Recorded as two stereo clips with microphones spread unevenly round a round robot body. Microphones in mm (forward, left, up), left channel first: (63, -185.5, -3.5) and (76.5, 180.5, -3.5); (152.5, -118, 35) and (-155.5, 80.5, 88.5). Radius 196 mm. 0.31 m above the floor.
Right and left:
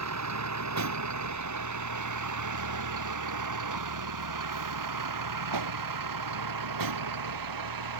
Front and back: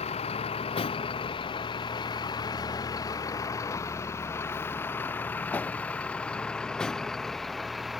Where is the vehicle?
40° left; by 8.0 s 60° left.